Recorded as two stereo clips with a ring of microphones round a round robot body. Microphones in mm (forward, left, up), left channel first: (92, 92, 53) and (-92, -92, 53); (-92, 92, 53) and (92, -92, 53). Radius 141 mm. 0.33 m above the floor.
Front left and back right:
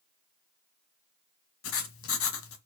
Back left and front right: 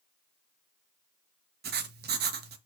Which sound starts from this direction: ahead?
Writing, at 1.6 s.